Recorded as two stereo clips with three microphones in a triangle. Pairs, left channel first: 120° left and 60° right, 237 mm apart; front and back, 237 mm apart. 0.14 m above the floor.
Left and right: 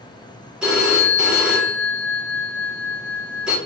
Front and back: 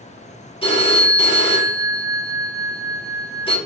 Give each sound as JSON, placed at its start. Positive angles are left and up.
{"t": 0.6, "sound": "a phone ringing", "azimuth_deg": 20, "distance_m": 1.0}